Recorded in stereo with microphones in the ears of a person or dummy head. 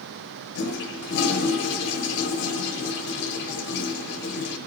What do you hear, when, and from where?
0.6 s a toilet flushing: 55° left (ahead or behind), 1.0 m